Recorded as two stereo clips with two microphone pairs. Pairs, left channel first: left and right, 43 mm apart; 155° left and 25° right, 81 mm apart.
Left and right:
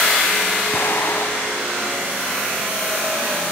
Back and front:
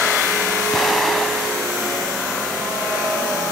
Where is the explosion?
65° left, 2.0 m.